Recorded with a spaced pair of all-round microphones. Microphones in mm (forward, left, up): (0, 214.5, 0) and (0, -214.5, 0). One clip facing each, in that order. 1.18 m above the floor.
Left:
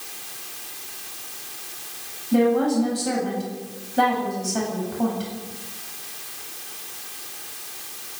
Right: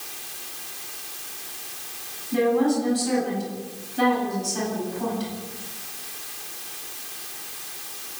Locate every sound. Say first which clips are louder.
2.3 s a woman speaking: left 2 dB; 75° left (ahead or behind), 8.5 m